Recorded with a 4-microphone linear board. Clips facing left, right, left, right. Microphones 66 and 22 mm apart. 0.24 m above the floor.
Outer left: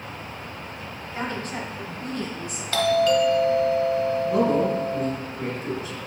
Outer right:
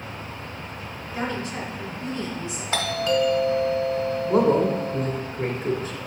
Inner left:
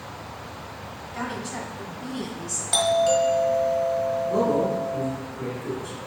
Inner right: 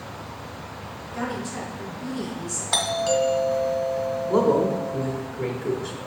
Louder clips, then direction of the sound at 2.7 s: Outer left 4 dB, inner left 3 dB; 20° right (ahead or behind).